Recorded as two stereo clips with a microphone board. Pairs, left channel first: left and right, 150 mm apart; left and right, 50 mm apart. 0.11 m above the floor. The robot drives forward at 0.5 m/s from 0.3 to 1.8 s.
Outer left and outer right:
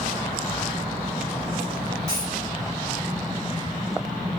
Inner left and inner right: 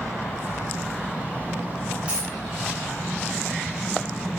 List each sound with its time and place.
2.1 s a dropped coin: 20° right (ahead or behind), 5 m